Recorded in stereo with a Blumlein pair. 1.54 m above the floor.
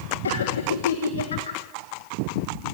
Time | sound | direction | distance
0.2 | laughter | 70° left | 1.7 m